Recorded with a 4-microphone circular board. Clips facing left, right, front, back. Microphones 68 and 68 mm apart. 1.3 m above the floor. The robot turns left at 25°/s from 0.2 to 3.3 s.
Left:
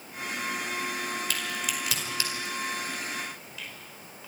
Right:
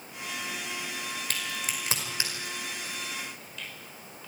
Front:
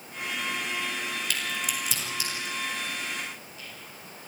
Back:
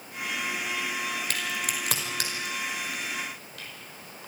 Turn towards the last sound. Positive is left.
turn(degrees=175)